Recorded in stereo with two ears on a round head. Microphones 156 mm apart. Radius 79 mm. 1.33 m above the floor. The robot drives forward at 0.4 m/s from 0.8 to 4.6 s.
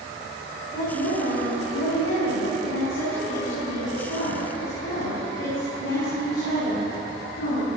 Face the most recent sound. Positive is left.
turn(degrees=75)  # may be behind; listen again after turning